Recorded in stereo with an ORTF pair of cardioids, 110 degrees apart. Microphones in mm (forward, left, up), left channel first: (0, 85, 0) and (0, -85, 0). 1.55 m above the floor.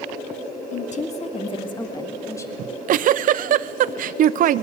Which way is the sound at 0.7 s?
50° left.